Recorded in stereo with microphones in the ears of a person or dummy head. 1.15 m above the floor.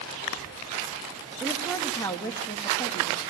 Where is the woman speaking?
Centre (ahead or behind), 1.1 m; by 3.2 s 30° left (ahead or behind), 1.7 m.